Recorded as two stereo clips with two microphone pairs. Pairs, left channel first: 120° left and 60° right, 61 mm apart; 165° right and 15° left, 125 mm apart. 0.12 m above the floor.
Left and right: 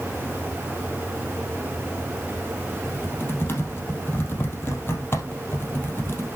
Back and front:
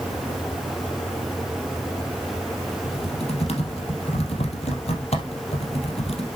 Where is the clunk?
I don't hear a clunk.